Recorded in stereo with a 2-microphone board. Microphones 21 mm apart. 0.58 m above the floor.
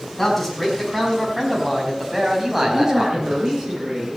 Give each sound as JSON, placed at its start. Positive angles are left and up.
{"t": 0.2, "sound": "a man speaking", "side_deg": 5, "distance_m": 6.0}
{"t": 2.6, "sound": "a man speaking", "side_deg": -45, "distance_m": 8.0}